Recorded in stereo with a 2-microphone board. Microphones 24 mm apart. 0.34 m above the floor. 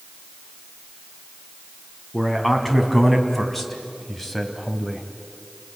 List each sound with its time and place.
2.1 s a man speaking: 5° left (ahead or behind), 3.5 m; by 5.0 s 15° left (ahead or behind), 2.5 m